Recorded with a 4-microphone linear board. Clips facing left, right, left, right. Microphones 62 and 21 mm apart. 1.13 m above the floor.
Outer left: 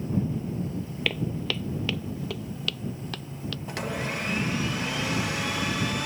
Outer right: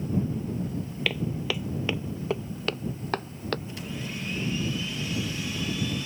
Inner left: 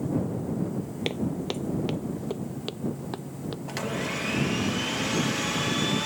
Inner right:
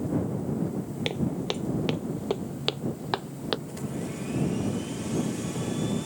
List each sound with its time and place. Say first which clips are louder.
1.1 s footsteps: even, even; centre (ahead or behind); by 3.6 s 50° right (ahead or behind)
3.7 s a blender: outer left 5 dB, inner left 4 dB; 70° left (ahead or behind)